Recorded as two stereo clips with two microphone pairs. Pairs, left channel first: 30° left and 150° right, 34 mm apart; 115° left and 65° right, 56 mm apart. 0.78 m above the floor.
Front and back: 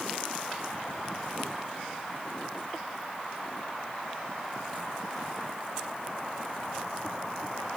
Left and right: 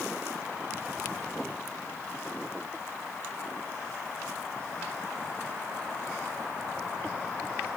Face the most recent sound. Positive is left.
No sound to turn to.